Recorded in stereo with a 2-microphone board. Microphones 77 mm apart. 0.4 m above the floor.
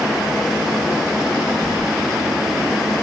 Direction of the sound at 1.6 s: 35° left (ahead or behind).